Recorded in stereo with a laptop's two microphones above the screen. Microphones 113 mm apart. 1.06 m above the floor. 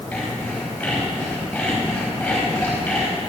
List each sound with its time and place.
0.1 s sawing: 10° left (ahead or behind), 5 m